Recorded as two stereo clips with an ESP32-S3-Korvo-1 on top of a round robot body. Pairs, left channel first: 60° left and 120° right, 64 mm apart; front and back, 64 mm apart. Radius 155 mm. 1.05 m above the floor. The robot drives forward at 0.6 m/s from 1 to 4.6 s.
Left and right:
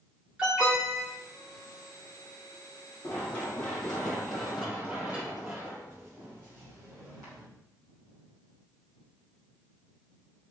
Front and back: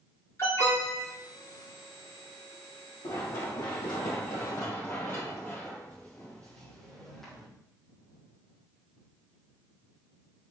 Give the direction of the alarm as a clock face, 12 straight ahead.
1 o'clock.